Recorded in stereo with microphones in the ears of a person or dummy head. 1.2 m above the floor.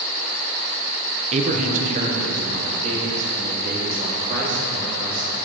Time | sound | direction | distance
1.3 | a man speaking | 35° right (ahead or behind) | 0.7 m